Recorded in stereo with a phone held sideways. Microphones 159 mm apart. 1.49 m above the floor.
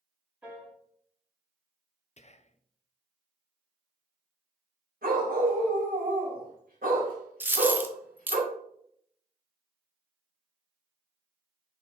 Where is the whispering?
45° left (ahead or behind), 0.5 m.